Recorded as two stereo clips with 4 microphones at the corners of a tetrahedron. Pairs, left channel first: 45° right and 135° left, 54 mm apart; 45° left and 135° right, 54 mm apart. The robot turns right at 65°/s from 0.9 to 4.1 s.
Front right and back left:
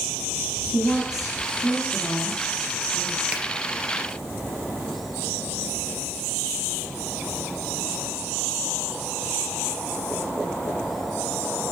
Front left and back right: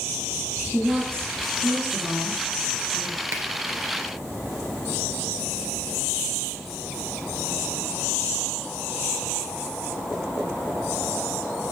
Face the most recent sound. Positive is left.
turn(degrees=-105)